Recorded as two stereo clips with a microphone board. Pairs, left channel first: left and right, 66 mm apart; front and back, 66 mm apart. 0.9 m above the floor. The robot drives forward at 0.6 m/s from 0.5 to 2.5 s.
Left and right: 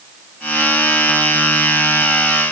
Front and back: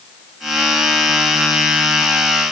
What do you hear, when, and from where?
Only background noise.